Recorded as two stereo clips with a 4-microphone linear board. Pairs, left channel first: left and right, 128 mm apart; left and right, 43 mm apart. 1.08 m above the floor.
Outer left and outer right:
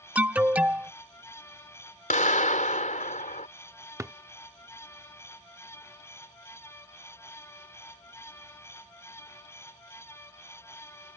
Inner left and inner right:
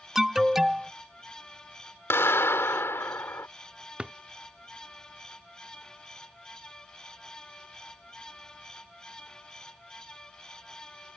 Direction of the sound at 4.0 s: 25° right (ahead or behind).